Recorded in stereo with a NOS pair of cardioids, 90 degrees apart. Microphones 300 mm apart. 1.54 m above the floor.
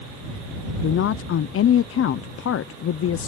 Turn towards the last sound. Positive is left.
turn(degrees=50)